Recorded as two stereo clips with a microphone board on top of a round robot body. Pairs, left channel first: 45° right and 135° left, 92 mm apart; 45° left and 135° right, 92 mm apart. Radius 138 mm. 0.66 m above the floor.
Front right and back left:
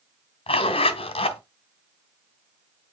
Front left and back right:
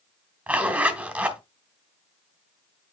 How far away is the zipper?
About 2 m.